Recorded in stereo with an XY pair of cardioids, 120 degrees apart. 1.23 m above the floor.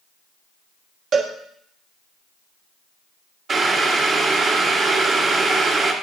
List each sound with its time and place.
1.1 s a cowbell: 55° right, 1.2 m
3.5 s boiling: 40° right, 1.5 m